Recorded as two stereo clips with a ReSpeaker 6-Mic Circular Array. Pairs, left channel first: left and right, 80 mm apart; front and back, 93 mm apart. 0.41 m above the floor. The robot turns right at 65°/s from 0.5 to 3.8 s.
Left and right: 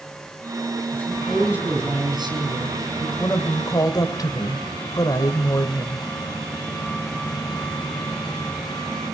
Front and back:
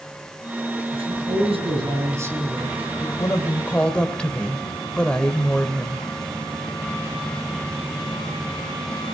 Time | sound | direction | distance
0.9 | a man speaking | 155° left | 6 m
3.2 | a woman speaking | 35° left | 2.0 m